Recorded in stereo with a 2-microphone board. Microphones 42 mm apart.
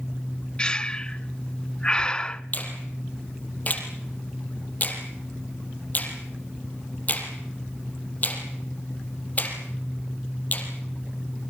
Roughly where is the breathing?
Left.